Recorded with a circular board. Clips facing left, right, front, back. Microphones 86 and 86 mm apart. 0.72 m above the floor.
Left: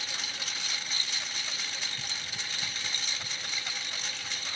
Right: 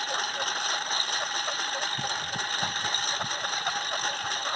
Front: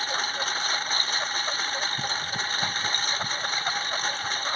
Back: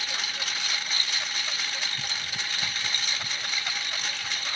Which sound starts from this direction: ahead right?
A lawn mower, at 0.0 s.